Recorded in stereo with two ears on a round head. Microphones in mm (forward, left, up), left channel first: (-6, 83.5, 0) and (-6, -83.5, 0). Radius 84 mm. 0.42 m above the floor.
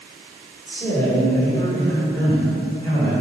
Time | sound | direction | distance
0.7 | a man speaking | 5° left (ahead or behind) | 1.3 m